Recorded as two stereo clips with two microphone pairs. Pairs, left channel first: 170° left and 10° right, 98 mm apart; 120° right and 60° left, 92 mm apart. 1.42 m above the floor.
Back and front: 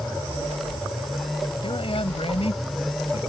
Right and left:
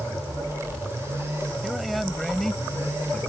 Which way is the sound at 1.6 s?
145° left.